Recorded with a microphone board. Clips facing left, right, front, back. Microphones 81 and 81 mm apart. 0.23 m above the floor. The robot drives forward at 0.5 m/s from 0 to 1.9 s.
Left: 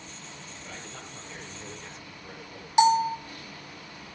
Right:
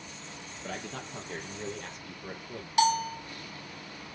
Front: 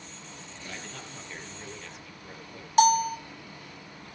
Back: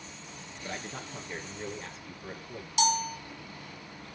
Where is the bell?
25° left, 1.4 m.